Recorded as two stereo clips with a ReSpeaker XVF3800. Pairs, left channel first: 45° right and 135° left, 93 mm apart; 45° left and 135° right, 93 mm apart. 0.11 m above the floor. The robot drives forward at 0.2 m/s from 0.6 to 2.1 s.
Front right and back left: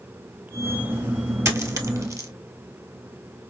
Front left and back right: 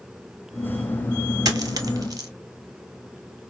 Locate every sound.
1.4 s a dropped coin: 175° right, 1.1 m